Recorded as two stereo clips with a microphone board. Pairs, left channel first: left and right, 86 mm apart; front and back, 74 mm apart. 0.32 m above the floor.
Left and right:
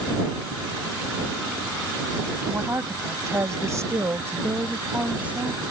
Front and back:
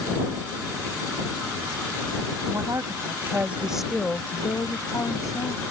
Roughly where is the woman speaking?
Behind right.